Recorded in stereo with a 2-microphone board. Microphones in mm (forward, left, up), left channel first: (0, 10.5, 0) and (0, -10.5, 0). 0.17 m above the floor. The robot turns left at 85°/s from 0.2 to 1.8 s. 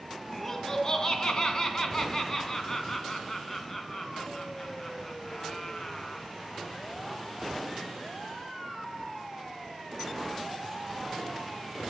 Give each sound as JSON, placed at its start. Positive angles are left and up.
{"t": 0.3, "sound": "laughter", "azimuth_deg": 175, "distance_m": 1.2}